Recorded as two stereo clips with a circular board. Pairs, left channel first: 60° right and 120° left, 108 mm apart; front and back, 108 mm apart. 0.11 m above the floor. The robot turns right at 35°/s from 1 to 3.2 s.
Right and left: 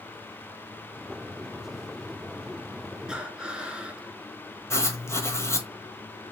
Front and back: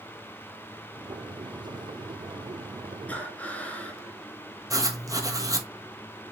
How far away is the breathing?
About 0.6 m.